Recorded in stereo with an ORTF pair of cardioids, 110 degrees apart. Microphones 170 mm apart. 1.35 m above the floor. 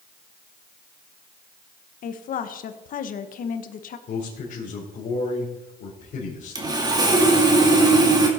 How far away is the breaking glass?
I don't hear breaking glass.